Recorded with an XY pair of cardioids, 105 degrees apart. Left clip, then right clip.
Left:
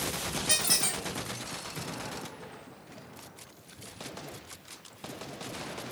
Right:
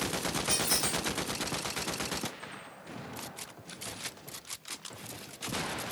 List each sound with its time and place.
0.5 s a squeak: 50° left, 1.8 m